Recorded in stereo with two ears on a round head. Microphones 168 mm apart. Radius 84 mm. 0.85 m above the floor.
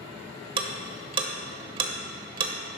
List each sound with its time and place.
0.6 s ticking: 30° right (ahead or behind), 0.9 m